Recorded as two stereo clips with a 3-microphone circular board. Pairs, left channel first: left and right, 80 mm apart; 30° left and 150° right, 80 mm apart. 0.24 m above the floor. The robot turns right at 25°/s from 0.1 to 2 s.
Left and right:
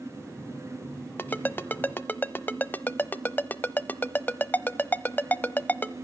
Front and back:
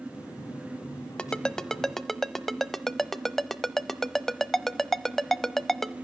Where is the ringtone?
90° left, 0.7 m; by 6.0 s 110° left, 0.7 m.